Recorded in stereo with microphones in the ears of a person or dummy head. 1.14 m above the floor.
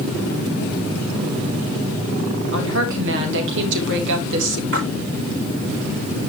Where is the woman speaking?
65° right (ahead or behind), 3 m.